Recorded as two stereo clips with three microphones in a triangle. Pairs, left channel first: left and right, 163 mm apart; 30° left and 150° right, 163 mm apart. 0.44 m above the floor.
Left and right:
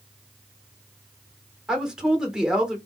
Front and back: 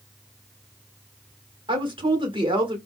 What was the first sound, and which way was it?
A woman speaking, 170° right.